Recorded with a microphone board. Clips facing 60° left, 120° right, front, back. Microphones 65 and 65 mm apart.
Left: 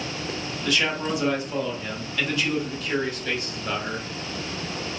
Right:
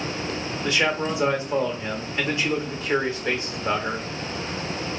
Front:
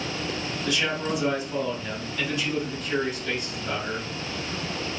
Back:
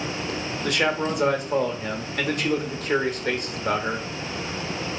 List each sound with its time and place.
0.6 s a man speaking: 175° right, 1.0 m